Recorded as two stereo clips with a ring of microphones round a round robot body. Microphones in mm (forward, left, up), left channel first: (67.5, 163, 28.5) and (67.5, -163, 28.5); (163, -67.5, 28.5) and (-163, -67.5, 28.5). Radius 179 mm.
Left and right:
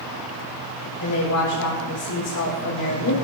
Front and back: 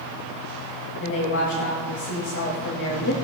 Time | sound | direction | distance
1.0 | a woman speaking | 50° left | 4 m